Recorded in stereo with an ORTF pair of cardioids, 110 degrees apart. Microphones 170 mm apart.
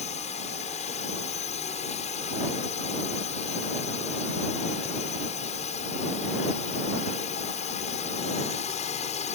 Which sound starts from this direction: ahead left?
A drone, at 0.0 s.